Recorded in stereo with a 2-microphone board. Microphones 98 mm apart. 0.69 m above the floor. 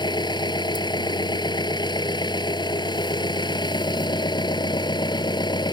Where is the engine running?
50° left (ahead or behind).